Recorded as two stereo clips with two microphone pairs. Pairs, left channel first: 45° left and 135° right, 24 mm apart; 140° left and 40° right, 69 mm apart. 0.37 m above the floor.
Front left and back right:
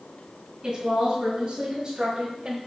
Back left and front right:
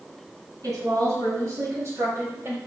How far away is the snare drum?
No snare drum in this recording.